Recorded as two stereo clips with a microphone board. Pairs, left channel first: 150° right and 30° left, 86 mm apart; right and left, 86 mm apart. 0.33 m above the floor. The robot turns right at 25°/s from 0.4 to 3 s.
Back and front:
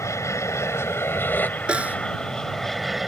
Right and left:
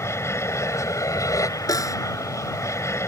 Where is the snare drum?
45° right; by 2.0 s 40° right.